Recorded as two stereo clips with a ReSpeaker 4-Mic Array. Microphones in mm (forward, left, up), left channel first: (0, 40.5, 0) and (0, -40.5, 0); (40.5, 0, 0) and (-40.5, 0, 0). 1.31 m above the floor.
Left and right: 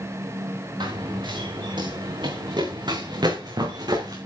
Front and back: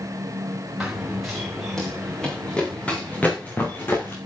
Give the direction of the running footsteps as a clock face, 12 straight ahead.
3 o'clock.